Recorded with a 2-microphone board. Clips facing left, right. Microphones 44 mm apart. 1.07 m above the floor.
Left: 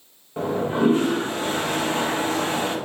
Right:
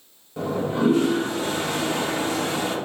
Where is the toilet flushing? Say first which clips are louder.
Left 2 dB; 30° left (ahead or behind), 0.8 m.